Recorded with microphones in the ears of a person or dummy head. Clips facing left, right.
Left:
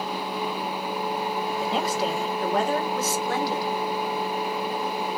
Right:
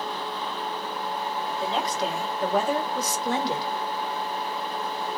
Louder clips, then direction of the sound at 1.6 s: Left 1 dB; 10° left (ahead or behind).